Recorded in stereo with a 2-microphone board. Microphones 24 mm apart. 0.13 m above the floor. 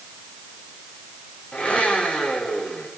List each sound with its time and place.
1.5 s a blender: 65° left (ahead or behind), 9 m